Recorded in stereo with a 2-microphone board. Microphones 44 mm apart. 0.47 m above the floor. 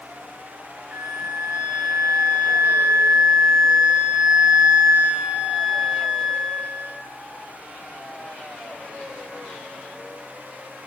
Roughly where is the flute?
Right.